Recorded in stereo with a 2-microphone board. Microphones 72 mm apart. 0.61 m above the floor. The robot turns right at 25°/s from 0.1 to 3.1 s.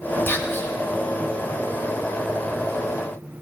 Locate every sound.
0.3 s whispering: 30° left (ahead or behind), 0.9 m